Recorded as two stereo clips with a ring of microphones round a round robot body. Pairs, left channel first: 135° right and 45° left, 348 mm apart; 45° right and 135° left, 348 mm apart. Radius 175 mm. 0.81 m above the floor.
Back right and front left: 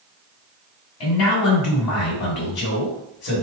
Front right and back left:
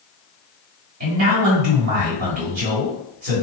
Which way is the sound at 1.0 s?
175° right.